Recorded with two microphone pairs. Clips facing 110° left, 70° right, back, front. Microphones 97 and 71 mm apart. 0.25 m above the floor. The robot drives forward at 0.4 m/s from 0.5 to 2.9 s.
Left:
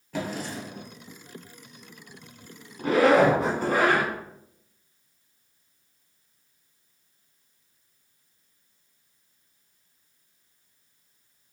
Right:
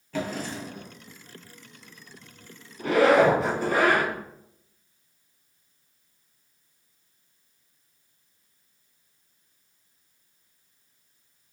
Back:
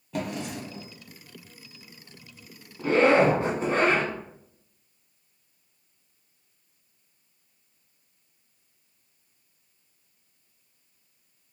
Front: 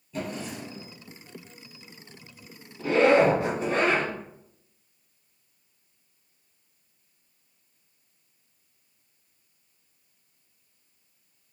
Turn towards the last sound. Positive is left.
turn(degrees=135)